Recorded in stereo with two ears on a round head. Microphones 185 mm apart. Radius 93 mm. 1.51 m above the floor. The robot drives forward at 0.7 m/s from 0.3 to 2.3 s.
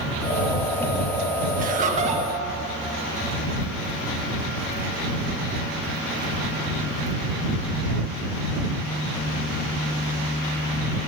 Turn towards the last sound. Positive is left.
turn(degrees=-30)  # may be behind; listen again after turning